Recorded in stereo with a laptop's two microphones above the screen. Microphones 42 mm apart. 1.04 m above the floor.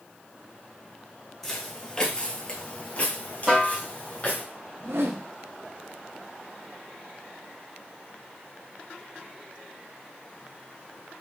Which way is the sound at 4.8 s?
70° right (ahead or behind).